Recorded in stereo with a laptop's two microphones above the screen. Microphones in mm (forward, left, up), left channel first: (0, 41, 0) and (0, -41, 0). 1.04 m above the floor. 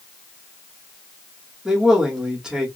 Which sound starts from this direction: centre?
A man speaking, at 1.6 s.